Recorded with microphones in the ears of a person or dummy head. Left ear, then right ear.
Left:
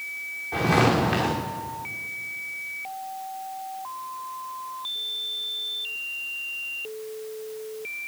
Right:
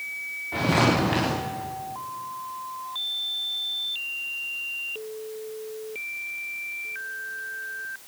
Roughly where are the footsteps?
Centre.